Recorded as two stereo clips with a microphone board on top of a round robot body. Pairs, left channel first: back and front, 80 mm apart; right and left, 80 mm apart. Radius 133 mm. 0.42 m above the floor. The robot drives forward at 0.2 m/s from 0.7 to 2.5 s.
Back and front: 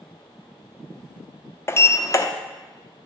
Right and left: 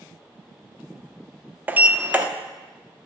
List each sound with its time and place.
1.7 s a sliding door: 145° left, 0.6 m; by 2.2 s 155° left, 0.7 m